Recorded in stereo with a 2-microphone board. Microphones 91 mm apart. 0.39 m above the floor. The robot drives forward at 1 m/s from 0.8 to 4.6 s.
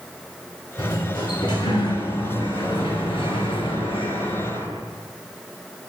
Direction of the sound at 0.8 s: 50° left (ahead or behind).